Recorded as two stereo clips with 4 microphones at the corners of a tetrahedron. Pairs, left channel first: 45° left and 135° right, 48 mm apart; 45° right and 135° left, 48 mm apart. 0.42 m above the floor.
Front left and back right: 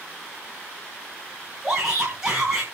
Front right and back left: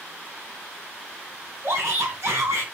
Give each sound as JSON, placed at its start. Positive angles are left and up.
{"t": 1.6, "sound": "a shout", "azimuth_deg": 155, "distance_m": 4.0}